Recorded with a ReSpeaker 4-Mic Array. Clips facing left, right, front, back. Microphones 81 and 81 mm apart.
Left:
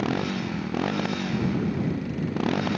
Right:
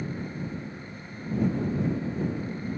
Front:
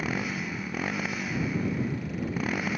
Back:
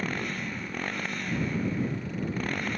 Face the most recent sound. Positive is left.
turn(degrees=85)